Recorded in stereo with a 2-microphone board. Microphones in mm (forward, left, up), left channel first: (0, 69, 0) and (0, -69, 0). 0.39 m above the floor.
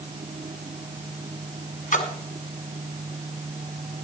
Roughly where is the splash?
Left.